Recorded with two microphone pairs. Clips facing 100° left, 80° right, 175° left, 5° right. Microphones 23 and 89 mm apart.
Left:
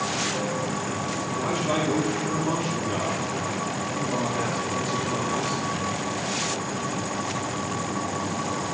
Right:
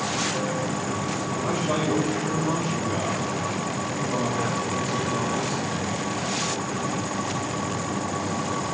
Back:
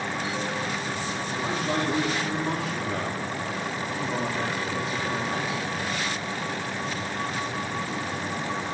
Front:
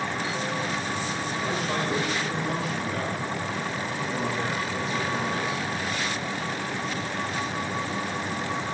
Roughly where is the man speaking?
Behind left.